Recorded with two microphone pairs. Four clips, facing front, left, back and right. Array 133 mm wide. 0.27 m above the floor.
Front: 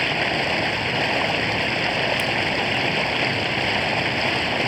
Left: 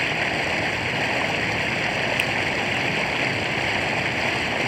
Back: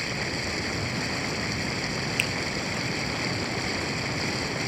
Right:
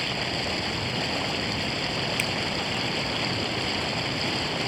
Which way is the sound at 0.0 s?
20° left.